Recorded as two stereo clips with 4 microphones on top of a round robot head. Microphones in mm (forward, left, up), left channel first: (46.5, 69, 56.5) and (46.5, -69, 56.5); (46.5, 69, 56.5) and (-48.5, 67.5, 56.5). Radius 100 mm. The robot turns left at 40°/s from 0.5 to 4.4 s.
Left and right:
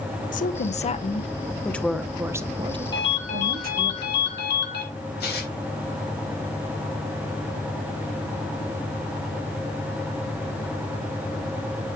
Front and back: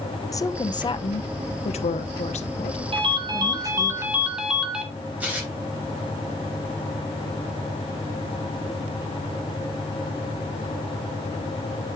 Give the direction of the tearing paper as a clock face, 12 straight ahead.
8 o'clock.